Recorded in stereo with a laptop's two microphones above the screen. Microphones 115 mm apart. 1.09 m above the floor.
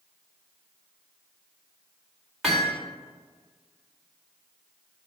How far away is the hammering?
About 2.5 m.